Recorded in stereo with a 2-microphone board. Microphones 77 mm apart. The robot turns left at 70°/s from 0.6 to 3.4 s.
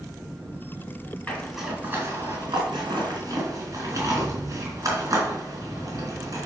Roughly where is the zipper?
Centre.